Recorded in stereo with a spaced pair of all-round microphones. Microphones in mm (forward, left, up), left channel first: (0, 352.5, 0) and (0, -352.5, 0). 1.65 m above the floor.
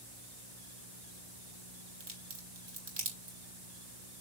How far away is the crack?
About 3.5 m.